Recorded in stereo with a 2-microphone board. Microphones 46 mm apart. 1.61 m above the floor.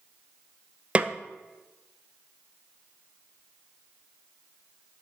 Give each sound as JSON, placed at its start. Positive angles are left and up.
{"t": 0.9, "sound": "a snare drum", "side_deg": -25, "distance_m": 0.5}